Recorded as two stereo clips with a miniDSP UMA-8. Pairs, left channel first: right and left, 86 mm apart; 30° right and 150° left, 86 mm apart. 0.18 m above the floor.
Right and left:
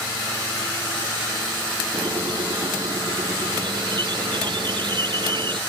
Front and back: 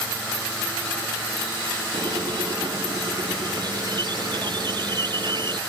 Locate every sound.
1.9 s a squeak: 115° left